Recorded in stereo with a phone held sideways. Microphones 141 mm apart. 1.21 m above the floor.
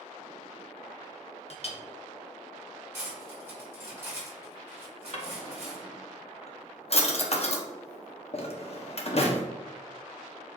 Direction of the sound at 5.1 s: 45° left (ahead or behind).